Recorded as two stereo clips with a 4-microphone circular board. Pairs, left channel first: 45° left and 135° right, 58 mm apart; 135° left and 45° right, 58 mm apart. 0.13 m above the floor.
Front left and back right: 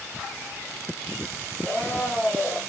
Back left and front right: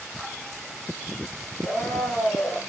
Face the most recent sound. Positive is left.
turn(degrees=155)